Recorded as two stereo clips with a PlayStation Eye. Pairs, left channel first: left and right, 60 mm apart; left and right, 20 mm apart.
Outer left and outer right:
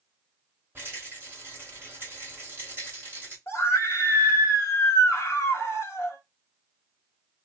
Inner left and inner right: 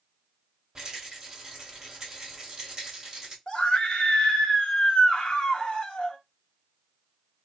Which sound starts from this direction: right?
A rattle, at 0.8 s.